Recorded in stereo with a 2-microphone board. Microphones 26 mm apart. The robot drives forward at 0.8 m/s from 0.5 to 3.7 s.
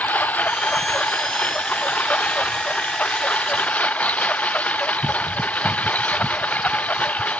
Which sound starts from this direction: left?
A lawn mower, at 0.0 s.